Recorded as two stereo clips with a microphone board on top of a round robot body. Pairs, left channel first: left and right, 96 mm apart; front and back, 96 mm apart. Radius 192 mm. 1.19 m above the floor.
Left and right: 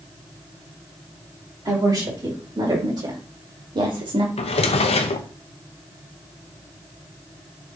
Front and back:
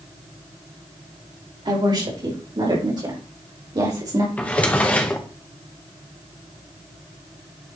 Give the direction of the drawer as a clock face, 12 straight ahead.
9 o'clock.